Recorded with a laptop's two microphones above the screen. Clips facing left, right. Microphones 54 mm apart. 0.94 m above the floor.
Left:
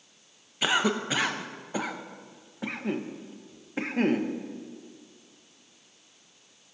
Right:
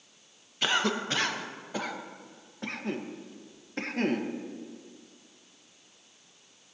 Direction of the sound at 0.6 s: 10° left (ahead or behind).